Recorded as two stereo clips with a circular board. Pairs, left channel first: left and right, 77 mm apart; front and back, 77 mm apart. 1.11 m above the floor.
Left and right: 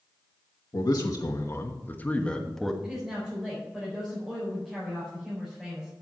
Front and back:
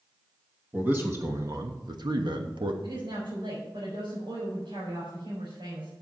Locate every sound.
0.7 s a man speaking: 110° left, 1.4 m; by 2.7 s straight behind, 1.4 m
2.8 s a woman speaking: 175° right, 4.5 m